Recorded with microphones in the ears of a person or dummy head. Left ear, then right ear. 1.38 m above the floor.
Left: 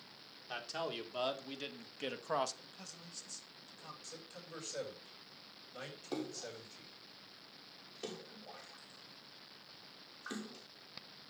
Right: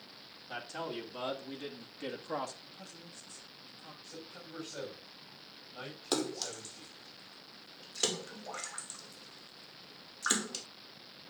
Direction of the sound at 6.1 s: 45° right (ahead or behind).